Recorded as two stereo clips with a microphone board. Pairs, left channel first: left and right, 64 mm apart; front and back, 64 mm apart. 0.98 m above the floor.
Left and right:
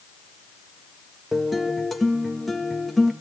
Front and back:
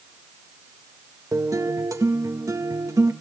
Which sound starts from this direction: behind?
A guitar, at 1.3 s.